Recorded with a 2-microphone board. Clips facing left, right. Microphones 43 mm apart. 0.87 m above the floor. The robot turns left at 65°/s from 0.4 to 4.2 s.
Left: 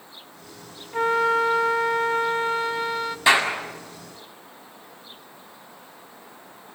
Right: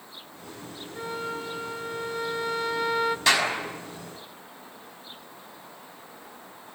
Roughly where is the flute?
Behind left.